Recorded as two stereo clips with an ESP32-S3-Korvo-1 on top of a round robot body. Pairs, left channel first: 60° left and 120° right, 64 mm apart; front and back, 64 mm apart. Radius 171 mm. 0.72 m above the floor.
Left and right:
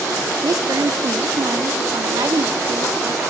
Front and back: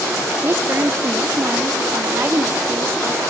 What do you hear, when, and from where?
0.4 s a woman speaking: 125° right, 2 m